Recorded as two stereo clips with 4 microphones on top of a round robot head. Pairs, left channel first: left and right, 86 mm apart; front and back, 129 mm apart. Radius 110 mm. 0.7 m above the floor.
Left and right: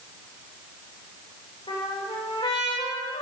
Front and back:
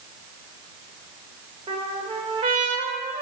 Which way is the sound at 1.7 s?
135° left.